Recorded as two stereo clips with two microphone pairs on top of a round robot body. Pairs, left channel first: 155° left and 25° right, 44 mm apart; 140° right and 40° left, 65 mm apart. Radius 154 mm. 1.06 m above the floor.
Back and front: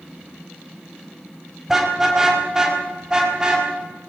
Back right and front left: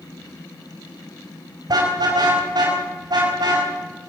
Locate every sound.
1.7 s a car horn: 55° left, 4.5 m; by 3.7 s 50° left, 5.5 m